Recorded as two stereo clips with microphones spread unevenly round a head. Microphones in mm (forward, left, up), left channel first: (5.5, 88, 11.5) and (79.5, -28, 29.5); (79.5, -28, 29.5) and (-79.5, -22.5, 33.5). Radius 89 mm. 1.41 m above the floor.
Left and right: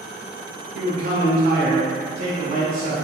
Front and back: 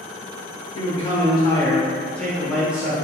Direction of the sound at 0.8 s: 50° right.